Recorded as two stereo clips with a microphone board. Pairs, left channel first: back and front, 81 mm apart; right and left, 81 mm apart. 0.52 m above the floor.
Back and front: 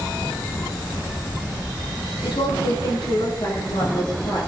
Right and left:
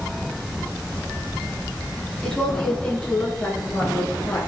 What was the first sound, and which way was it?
A woman speaking, 170° right.